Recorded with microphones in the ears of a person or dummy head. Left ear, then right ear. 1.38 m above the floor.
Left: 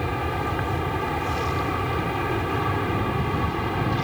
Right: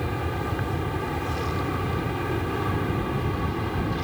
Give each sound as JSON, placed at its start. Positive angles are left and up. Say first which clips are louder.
{"t": 0.0, "sound": "an aircraft", "louder": "left 3 dB", "side_deg": 20}